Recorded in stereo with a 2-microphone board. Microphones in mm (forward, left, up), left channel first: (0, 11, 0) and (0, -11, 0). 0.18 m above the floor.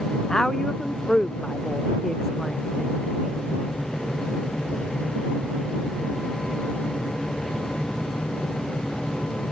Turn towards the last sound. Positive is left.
turn(degrees=20)  # may be behind; listen again after turning